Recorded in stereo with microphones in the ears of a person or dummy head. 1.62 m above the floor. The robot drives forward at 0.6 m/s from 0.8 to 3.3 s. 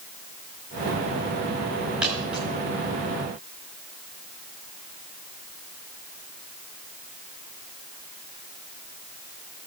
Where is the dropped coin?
15° right (ahead or behind), 5.5 m.